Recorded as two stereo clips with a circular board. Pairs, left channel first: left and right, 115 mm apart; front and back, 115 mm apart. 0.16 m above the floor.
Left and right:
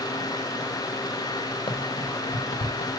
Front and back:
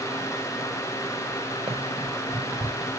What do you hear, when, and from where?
1.7 s running footsteps: 135° left, 1.7 m; by 2.9 s 85° left, 1.0 m